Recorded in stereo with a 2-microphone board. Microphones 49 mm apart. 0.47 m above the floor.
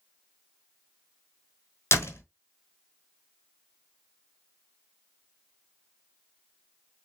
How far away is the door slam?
About 1.1 m.